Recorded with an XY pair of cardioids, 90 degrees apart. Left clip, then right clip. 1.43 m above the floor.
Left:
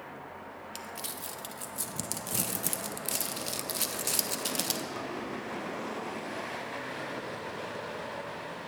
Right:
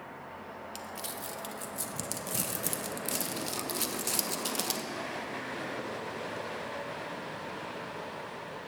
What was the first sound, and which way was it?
Crumpling, 15° left.